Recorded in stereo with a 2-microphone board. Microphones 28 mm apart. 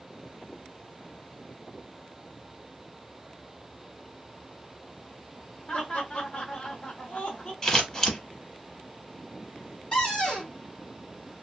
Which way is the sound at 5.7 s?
35° left (ahead or behind).